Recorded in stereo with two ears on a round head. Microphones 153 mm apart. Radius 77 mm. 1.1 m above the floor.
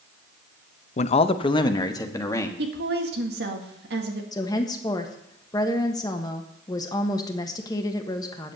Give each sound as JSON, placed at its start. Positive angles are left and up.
{"t": 1.0, "sound": "a man speaking", "side_deg": 45, "distance_m": 0.6}
{"t": 2.6, "sound": "a woman speaking", "side_deg": -65, "distance_m": 2.0}
{"t": 4.3, "sound": "a woman speaking", "side_deg": 25, "distance_m": 1.4}